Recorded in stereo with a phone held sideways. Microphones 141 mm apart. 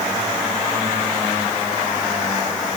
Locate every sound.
Only background noise.